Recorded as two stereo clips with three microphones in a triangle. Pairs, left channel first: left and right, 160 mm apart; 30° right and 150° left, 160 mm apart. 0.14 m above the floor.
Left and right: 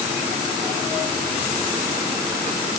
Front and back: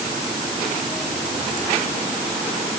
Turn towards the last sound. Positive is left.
No sound to turn to.